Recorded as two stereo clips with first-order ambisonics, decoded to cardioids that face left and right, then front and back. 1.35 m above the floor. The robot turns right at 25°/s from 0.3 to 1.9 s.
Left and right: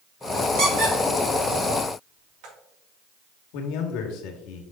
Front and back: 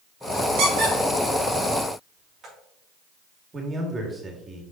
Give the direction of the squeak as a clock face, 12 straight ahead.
5 o'clock.